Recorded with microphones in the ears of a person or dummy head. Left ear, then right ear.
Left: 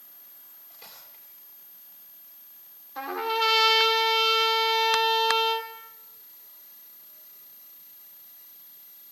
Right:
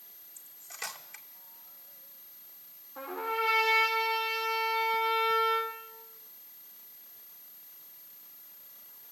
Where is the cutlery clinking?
50° right (ahead or behind), 2 m.